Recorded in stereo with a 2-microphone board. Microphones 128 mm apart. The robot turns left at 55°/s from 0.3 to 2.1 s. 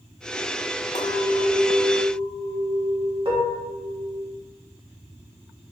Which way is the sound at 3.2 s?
40° right (ahead or behind).